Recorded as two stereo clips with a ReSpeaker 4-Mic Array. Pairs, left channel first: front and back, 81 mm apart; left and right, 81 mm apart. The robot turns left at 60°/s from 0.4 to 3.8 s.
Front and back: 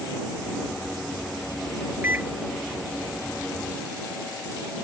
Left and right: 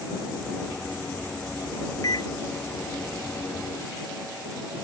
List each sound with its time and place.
2.0 s a microwave: 120° left; by 2.3 s 105° left